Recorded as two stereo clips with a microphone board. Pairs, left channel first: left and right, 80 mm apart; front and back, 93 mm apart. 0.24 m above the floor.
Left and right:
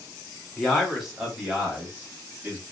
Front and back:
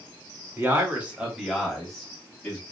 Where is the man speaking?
170° left, 1.1 m; by 2.6 s 55° right, 1.2 m.